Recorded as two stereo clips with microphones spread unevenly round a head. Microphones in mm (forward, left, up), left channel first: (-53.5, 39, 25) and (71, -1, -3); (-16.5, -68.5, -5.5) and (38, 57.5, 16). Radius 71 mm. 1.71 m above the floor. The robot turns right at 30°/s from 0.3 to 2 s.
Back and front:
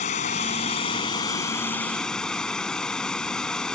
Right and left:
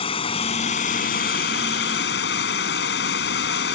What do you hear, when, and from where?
0.0 s running water: 170° right; by 3.7 s 120° right